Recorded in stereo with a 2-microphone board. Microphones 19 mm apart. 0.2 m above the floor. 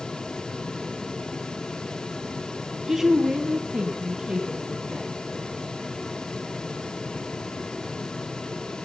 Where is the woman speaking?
20° right (ahead or behind), 1.1 m; by 5.1 s 35° right (ahead or behind), 3.5 m.